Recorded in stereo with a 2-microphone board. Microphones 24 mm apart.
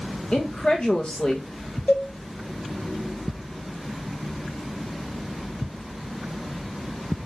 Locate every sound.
0.3 s a woman speaking: 45° left (ahead or behind), 1.7 m
1.9 s a cowbell: 60° left (ahead or behind), 4 m